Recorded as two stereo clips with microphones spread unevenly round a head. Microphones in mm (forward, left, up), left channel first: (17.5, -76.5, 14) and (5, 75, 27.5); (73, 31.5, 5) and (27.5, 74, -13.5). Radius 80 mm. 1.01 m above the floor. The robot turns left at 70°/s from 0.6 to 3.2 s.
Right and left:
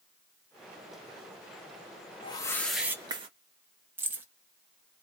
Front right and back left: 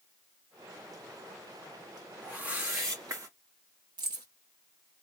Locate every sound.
2.2 s a whoosh: 135° right, 1.0 m; by 3.3 s 155° left, 1.0 m
4.0 s keys jangling: 170° left, 1.0 m